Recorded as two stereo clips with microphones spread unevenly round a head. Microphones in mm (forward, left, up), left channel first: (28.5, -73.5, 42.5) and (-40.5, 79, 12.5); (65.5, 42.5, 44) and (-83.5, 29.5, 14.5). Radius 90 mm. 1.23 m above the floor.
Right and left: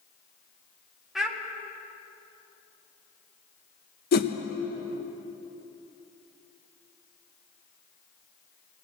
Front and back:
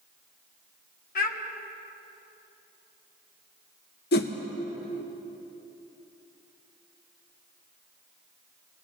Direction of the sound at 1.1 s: 25° left.